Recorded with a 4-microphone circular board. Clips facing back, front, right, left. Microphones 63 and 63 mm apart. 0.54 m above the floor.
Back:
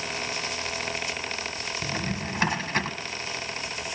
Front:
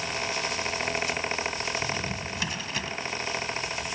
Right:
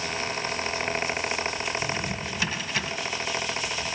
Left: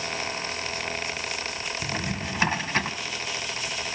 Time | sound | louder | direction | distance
1.8 | a drawer | back 1 dB, right 1 dB | 140° left | 1.5 m